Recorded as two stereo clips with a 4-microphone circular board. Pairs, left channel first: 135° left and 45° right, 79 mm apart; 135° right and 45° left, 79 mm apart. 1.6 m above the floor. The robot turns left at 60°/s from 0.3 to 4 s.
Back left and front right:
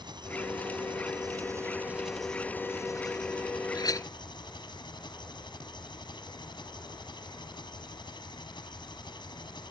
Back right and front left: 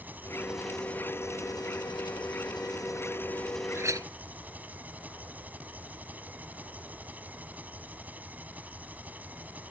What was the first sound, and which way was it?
An engine running, 25° right.